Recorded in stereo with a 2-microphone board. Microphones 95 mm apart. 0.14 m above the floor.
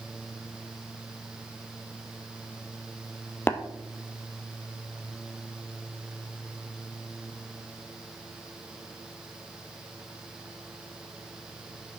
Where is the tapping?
25° left (ahead or behind), 1.0 m.